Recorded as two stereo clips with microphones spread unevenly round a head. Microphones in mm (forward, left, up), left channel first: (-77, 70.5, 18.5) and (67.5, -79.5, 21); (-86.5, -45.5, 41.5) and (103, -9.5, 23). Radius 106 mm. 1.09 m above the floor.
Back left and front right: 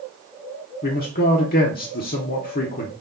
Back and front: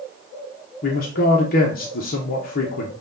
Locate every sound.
0.8 s a man speaking: 160° left, 0.7 m